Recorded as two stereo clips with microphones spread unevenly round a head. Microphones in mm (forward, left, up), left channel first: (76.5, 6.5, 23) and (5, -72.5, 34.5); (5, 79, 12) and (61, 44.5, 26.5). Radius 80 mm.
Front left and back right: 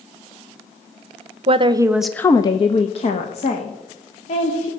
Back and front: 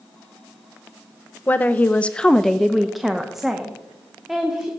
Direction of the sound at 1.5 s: 155° right.